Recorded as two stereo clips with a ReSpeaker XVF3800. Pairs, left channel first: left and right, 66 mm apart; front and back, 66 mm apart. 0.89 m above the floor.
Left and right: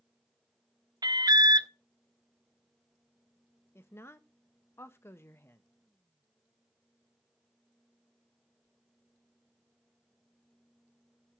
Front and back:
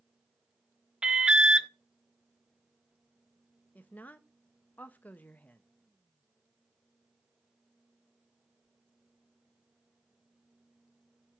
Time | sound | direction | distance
1.0 | an alarm | 100° right | 0.5 m
3.8 | a woman speaking | 60° left | 0.7 m